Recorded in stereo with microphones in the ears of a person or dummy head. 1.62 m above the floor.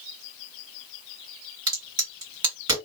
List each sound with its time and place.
1.7 s a crack: 25° right (ahead or behind), 2 m